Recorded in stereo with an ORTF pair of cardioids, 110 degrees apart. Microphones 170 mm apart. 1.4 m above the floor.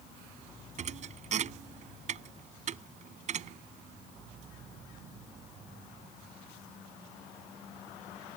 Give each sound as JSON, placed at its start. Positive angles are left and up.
{"t": 0.8, "sound": "a thud", "azimuth_deg": -45}